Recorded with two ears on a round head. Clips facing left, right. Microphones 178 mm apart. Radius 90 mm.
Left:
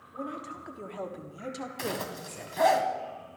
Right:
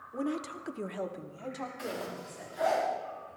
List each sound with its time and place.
0.1 s a woman speaking: 60° right (ahead or behind), 1.7 m; by 2.8 s 50° left (ahead or behind), 3 m
1.8 s a zipper: 80° left, 2.0 m